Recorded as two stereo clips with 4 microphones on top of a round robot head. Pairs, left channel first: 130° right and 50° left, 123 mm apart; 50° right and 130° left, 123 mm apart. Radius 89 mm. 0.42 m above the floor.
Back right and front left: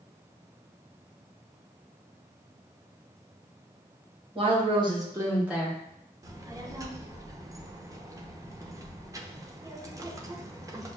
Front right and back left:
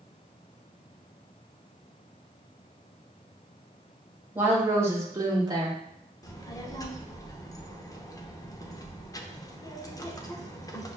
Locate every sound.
4.3 s a woman speaking: 60° left, 1.5 m; by 5.8 s 145° left, 1.1 m
6.2 s a child speaking: straight ahead, 0.7 m